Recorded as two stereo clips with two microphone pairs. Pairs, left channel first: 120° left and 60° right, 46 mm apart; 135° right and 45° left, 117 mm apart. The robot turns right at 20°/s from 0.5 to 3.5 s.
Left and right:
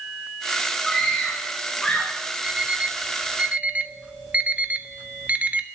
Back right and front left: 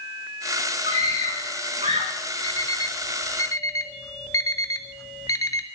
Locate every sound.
0.9 s a scream: 35° left, 2.5 m; by 2.1 s 60° left, 2.5 m
2.4 s an alarm clock: 115° right, 1.1 m; by 5.7 s 95° right, 1.1 m